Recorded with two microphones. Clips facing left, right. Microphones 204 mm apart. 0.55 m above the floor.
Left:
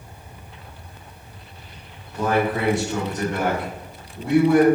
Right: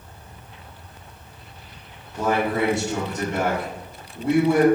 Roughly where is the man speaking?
Right.